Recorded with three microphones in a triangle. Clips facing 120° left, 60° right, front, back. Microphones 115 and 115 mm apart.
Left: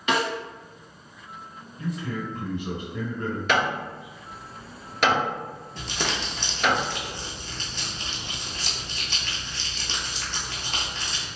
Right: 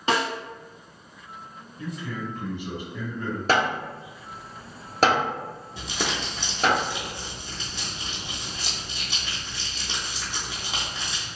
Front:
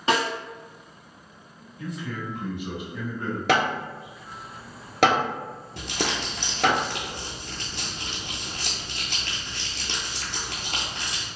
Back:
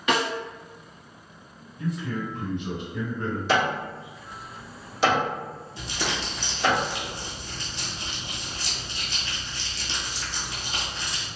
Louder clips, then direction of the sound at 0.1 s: Even, front 1 dB; 35° right.